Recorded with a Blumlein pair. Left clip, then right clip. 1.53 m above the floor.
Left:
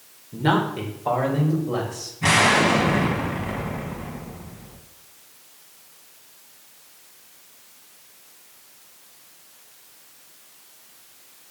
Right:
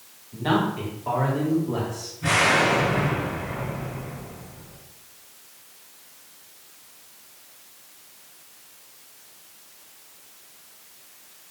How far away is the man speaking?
About 1.5 m.